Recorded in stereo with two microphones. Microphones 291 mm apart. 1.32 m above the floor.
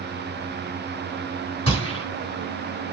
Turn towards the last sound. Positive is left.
turn(degrees=-50)  # may be behind; listen again after turning